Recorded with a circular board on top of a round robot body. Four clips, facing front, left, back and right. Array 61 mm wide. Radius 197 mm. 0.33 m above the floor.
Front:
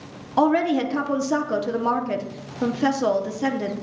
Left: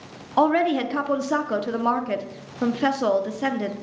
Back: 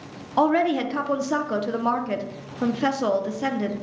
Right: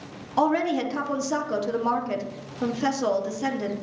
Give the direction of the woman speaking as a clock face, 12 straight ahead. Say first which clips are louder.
Left 3 dB, front 1 dB; 8 o'clock.